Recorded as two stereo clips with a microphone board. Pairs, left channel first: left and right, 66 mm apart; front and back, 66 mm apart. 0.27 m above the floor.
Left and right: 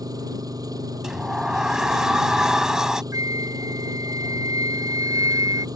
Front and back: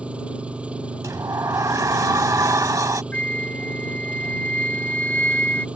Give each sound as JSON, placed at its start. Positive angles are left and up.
{"t": 0.0, "sound": "an engine running", "azimuth_deg": -110}
{"t": 1.0, "sound": "a sliding door", "azimuth_deg": -170}
{"t": 3.1, "sound": "a flute", "azimuth_deg": -70}